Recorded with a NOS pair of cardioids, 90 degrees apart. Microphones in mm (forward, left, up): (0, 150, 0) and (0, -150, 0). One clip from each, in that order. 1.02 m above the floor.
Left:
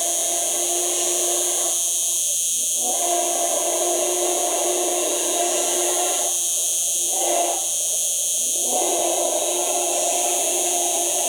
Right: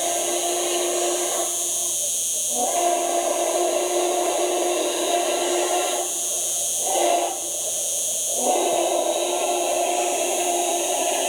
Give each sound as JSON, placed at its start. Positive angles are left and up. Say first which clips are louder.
{"t": 0.0, "sound": "an insect", "louder": "right 1 dB", "azimuth_deg": 45}